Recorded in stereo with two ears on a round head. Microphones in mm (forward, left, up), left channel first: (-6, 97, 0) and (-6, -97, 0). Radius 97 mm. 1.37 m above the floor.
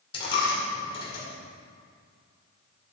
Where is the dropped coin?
25° left (ahead or behind), 2 m.